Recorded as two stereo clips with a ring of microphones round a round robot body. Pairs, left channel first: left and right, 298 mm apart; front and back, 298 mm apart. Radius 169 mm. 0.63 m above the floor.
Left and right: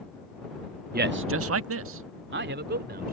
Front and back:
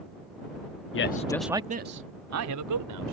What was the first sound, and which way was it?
A man speaking, 35° right.